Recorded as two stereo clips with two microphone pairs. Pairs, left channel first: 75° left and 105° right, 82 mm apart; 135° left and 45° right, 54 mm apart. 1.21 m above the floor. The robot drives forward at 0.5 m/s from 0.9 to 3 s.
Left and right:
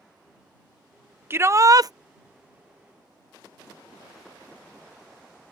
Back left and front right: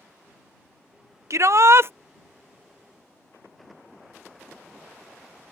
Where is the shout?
50° right; by 1.9 s 75° right.